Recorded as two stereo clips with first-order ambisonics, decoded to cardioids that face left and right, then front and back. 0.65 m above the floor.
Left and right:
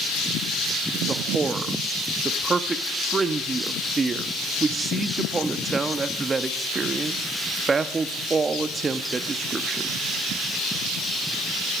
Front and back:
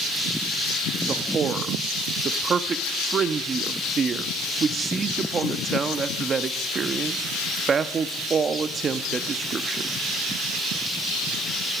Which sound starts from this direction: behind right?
A man speaking, at 1.1 s.